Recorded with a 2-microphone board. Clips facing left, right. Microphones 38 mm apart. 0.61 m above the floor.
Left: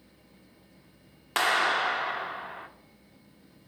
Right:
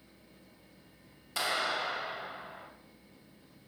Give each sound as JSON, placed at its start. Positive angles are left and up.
{"t": 1.4, "sound": "a clap", "side_deg": 60, "distance_m": 0.9}